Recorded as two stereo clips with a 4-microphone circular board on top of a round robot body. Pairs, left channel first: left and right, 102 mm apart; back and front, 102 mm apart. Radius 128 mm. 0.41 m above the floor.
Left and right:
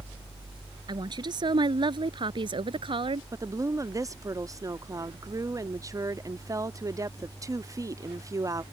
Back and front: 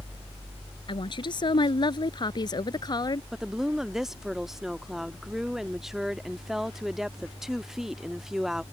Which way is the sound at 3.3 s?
80° right.